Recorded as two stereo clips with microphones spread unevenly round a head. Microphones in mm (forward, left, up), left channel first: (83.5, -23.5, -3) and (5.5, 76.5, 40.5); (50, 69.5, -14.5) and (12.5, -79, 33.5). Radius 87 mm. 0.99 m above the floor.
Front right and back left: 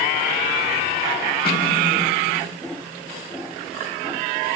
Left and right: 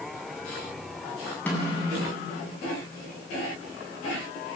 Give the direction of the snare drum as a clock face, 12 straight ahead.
12 o'clock.